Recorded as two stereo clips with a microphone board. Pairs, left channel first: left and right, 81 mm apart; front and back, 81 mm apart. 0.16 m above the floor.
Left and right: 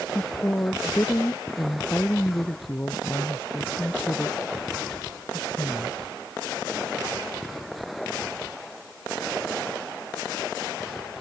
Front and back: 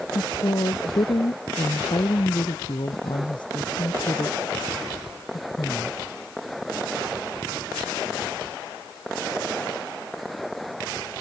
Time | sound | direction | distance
0.1 | a woman speaking | 25° left | ?